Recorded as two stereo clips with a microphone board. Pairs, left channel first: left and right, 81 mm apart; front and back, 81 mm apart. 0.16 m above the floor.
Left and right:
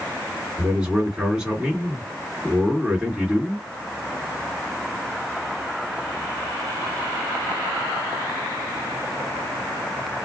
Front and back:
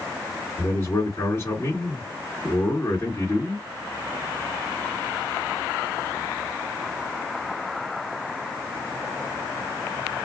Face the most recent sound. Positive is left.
turn(degrees=-25)